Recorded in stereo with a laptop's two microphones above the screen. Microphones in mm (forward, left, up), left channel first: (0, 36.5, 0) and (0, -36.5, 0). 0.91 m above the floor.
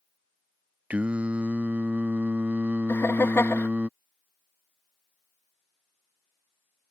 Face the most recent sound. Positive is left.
turn(degrees=35)  # may be behind; listen again after turning